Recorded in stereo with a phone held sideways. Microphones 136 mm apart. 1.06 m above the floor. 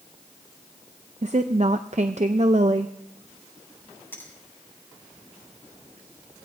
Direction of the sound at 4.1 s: 15° left (ahead or behind).